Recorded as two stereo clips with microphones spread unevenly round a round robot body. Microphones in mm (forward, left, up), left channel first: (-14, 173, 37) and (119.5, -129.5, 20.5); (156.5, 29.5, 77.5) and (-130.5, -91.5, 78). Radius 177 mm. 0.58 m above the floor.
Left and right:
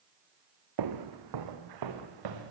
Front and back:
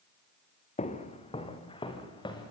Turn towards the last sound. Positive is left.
turn(degrees=-55)